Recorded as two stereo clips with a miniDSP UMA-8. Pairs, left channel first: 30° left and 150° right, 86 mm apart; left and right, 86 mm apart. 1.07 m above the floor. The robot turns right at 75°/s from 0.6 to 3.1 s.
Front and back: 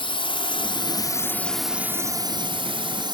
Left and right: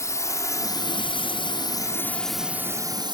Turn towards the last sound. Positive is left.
turn(degrees=-120)